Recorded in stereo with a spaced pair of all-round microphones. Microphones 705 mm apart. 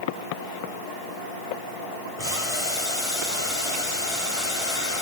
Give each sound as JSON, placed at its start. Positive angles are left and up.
{"t": 2.2, "sound": "boiling", "side_deg": -55, "distance_m": 3.5}